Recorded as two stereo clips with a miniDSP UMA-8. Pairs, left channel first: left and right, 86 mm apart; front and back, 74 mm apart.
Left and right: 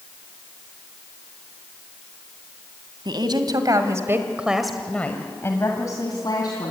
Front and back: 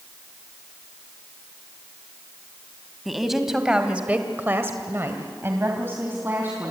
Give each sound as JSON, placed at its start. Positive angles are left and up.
{"t": 3.0, "sound": "a woman speaking", "azimuth_deg": -90, "distance_m": 2.0}